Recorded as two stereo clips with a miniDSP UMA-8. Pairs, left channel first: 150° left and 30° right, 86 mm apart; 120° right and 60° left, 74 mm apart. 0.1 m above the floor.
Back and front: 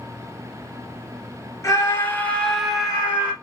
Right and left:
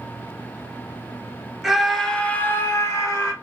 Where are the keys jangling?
No keys jangling in this recording.